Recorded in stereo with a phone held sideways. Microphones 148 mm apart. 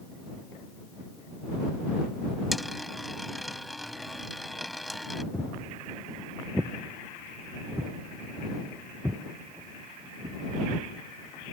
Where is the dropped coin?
Centre (ahead or behind).